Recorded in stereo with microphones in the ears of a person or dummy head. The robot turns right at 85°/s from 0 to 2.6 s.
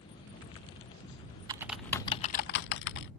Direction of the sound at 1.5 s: 25° right (ahead or behind).